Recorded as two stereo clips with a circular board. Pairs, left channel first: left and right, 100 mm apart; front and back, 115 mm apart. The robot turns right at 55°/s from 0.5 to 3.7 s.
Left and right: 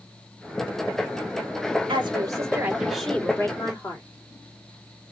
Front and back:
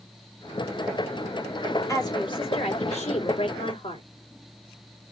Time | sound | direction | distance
1.9 | a woman speaking | 60° right | 2.5 m